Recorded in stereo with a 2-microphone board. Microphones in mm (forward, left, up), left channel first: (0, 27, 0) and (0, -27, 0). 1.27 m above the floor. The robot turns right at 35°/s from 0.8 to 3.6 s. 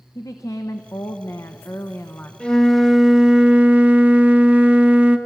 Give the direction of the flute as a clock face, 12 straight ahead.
7 o'clock.